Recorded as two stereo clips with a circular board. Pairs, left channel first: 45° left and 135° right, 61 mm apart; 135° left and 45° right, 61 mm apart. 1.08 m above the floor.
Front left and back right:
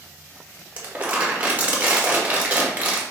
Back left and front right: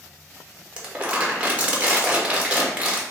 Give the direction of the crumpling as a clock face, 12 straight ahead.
3 o'clock.